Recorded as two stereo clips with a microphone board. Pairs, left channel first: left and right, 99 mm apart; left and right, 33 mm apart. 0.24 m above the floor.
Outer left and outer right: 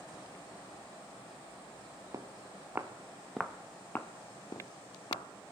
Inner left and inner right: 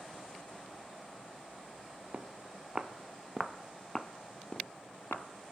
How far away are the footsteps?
About 1.7 m.